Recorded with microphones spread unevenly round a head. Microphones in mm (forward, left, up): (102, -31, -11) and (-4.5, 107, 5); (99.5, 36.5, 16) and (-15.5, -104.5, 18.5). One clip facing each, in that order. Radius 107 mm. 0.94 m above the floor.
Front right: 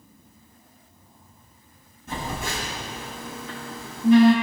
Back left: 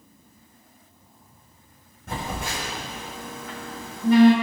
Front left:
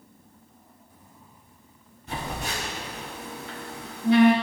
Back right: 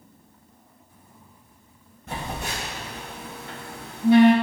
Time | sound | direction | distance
2.1 | a phone buzzing | straight behind | 4.5 m